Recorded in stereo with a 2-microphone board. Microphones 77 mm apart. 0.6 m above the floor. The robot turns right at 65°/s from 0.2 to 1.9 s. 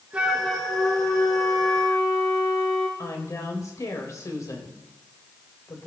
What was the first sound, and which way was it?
A flute, 15° right.